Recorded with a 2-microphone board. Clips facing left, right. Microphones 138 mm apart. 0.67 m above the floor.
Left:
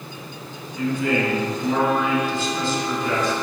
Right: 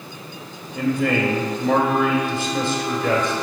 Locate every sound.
0.8 s a man speaking: 65° right (ahead or behind), 2.5 m